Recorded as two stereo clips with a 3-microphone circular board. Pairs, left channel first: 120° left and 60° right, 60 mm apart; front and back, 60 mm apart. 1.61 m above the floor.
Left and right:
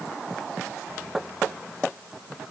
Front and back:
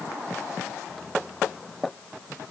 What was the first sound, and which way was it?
Only background noise.